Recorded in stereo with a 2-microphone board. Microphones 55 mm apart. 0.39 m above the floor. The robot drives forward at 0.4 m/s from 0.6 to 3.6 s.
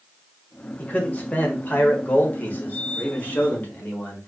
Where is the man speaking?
30° left (ahead or behind), 1.5 m; by 4.3 s 35° left (ahead or behind), 1.3 m.